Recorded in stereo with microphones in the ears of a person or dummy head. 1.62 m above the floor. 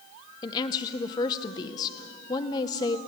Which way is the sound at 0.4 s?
30° left (ahead or behind).